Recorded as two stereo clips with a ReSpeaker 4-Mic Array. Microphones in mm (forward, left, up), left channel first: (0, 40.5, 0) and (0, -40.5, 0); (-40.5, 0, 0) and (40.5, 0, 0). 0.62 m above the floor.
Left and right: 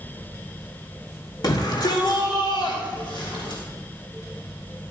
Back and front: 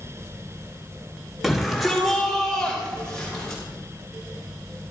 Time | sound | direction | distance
1.4 | a shout | 85° left | 1.8 m